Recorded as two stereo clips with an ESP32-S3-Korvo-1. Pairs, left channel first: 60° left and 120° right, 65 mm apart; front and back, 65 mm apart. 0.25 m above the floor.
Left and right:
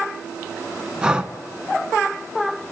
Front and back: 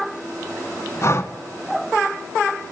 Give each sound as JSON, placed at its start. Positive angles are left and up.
{"t": 1.0, "sound": "breathing", "azimuth_deg": -45, "distance_m": 0.9}